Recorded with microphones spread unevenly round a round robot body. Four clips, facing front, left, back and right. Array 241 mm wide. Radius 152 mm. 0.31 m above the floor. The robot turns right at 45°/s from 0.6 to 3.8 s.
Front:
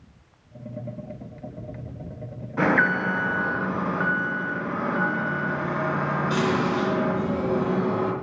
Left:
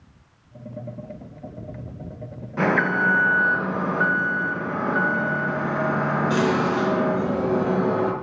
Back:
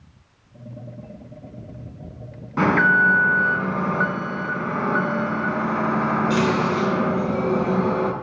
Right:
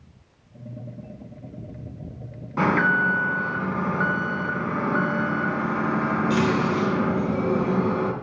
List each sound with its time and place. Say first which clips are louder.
2.6 s an alarm: even, back 4 dB; 165° right, 3 m; by 8.1 s 110° right, 3 m